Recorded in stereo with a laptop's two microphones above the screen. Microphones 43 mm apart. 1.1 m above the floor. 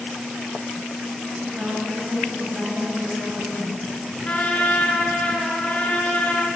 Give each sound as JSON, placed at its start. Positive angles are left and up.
{"t": 1.4, "sound": "a woman speaking", "side_deg": -35, "distance_m": 6.0}
{"t": 4.2, "sound": "a trumpet", "side_deg": 30, "distance_m": 4.0}